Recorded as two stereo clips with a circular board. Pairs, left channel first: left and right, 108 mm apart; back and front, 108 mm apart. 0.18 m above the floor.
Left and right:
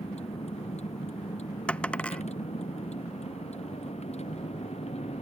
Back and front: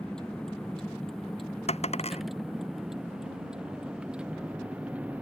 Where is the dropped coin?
170° left.